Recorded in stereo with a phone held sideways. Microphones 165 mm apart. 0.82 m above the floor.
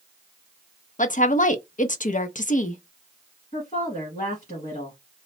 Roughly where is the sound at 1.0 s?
Left.